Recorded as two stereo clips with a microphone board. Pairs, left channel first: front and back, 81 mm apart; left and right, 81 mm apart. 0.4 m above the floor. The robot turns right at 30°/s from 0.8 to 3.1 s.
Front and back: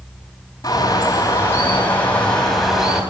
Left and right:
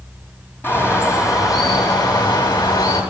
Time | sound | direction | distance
0.6 | a bird | 35° left | 3 m